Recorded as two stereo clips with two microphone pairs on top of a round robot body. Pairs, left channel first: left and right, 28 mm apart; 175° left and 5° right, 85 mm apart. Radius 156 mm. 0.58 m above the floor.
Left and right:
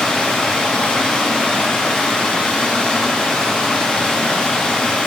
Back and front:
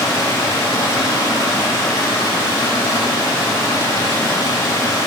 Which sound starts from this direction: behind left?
Running water, at 0.0 s.